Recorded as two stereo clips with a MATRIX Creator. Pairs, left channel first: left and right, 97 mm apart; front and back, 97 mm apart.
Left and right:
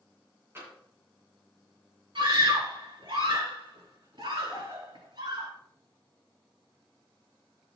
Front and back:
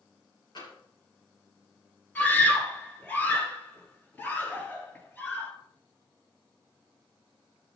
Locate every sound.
0.6 s tapping: 30° right, 6 m
2.1 s a scream: 70° right, 4 m